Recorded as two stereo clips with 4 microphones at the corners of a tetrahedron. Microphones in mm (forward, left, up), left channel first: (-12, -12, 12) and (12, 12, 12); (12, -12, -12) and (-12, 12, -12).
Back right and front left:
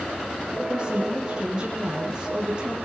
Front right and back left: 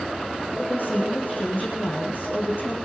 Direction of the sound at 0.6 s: 20° right.